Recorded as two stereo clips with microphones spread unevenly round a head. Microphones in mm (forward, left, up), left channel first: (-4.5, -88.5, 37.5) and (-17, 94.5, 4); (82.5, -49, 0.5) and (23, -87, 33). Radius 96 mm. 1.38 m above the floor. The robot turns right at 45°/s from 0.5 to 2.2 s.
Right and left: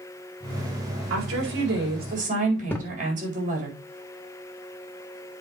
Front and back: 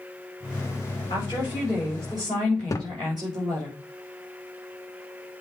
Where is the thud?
25° right, 0.9 m.